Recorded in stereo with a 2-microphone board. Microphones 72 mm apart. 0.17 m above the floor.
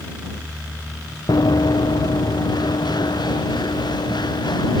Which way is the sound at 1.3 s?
65° left (ahead or behind).